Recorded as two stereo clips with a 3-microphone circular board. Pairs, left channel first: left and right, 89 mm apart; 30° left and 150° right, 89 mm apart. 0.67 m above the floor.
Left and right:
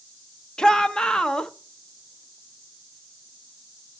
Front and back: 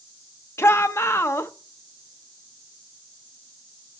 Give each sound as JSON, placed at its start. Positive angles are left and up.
{"t": 0.6, "sound": "a shout", "azimuth_deg": 15, "distance_m": 0.7}